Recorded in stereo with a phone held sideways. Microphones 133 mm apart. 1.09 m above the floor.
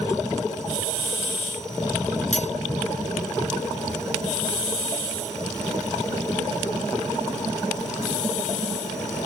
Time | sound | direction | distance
2.3 | cutlery clinking | 60° left (ahead or behind) | ?